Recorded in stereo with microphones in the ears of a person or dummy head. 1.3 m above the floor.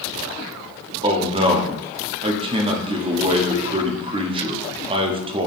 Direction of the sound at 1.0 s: 25° right (ahead or behind).